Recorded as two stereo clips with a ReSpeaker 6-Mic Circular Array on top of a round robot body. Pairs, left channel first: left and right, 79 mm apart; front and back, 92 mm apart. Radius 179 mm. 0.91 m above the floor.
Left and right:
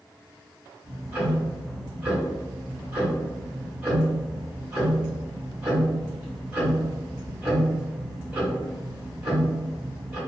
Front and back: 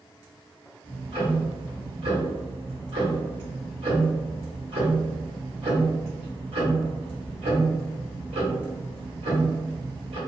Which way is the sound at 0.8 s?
160° right.